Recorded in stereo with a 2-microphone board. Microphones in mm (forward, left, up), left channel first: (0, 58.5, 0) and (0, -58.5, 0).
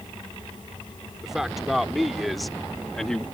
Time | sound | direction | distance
1.2 | a man speaking | 5° right (ahead or behind) | ?